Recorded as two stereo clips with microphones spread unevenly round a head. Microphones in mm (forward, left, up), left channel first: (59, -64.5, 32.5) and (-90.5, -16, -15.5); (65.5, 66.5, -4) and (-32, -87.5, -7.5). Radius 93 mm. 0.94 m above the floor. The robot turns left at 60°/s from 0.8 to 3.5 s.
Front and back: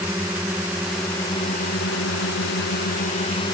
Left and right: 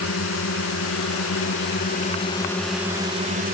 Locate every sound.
0.0 s a drone: 80° left; by 3.5 s 80° right